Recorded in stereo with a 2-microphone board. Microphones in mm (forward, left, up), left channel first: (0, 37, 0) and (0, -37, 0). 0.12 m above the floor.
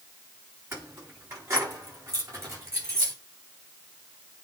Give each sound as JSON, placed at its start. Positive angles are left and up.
{"t": 0.7, "sound": "keys jangling", "side_deg": -30, "distance_m": 7.0}